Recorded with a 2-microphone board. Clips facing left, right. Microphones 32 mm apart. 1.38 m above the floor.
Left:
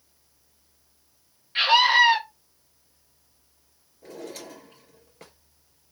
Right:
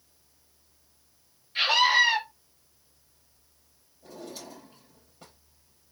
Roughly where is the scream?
Left.